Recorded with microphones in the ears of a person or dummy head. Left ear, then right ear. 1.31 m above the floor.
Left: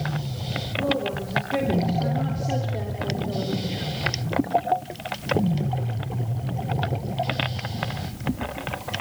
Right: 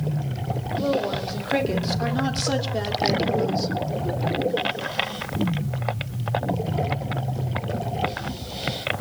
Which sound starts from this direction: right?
A woman speaking, at 0.8 s.